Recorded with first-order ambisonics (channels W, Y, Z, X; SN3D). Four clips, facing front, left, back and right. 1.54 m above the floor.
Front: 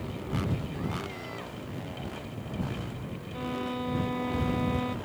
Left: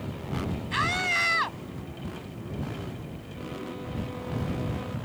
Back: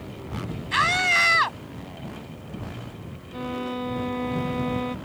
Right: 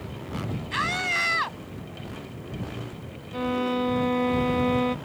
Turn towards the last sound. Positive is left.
turn(degrees=-100)